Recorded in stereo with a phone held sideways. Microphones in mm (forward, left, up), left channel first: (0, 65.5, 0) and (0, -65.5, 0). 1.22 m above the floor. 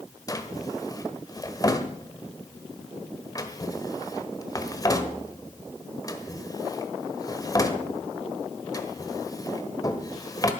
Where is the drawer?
25° left (ahead or behind), 1.2 m.